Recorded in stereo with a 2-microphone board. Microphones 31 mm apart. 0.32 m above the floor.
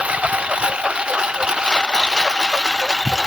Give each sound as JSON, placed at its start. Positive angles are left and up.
{"t": 0.0, "sound": "a lawn mower", "side_deg": -40}